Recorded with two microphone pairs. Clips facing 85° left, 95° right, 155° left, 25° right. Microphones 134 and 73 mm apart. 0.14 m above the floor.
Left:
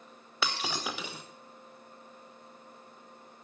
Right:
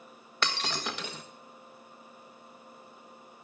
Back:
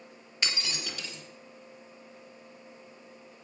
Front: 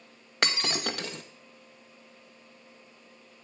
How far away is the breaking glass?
About 1.3 m.